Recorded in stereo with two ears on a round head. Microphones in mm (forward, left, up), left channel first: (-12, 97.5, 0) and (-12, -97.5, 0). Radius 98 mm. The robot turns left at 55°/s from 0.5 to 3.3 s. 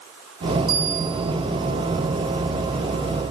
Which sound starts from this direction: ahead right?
A bell, at 0.7 s.